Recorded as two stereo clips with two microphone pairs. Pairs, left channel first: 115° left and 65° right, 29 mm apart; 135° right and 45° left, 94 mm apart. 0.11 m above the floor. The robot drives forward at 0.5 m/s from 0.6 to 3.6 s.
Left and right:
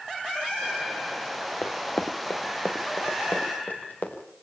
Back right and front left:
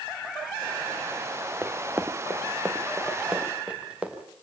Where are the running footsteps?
110° left, 1.3 m; by 4.2 s 120° left, 4.5 m.